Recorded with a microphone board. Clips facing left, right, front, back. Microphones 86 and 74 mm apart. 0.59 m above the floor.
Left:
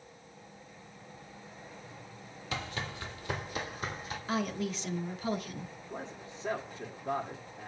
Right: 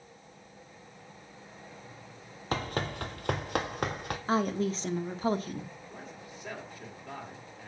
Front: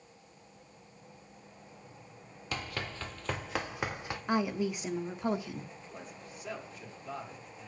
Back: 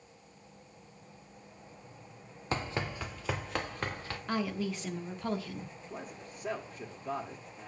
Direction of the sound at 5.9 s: 140° left.